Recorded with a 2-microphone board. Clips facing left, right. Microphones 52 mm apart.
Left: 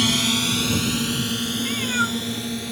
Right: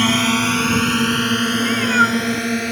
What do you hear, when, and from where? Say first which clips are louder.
0.0 s a drone: right 5 dB; 35° right (ahead or behind); by 2.7 s 60° right (ahead or behind)
1.6 s a cat meowing: right 8 dB; 30° right (ahead or behind)